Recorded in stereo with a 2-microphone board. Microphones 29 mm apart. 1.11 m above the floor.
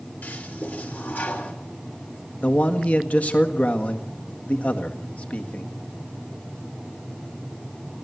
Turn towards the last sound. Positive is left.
turn(degrees=55)  # may be behind; listen again after turning